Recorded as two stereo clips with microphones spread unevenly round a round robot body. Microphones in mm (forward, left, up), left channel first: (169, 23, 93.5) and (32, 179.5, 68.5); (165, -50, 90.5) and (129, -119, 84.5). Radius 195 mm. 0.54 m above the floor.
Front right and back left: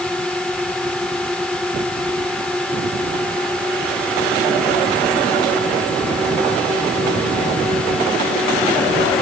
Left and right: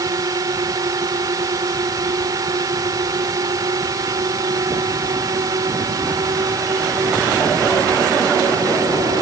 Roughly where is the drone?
Behind right.